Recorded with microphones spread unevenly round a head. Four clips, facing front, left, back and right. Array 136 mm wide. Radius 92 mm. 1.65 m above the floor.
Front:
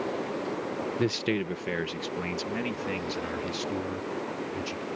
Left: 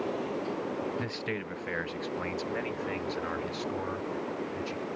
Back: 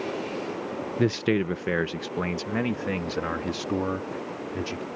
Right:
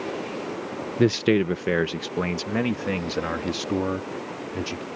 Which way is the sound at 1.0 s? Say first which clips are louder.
Right 15 dB, back 6 dB; 95° right.